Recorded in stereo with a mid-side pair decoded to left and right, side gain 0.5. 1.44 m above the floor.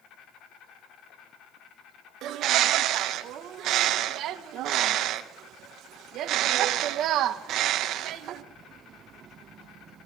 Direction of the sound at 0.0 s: 65° left.